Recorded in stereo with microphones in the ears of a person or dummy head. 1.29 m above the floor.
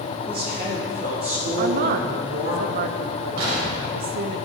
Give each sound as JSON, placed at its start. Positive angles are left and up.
{"t": 0.3, "sound": "a woman speaking", "side_deg": -50, "distance_m": 3.0}
{"t": 1.6, "sound": "a woman speaking", "side_deg": -50, "distance_m": 0.6}
{"t": 3.4, "sound": "an explosion", "side_deg": -75, "distance_m": 2.5}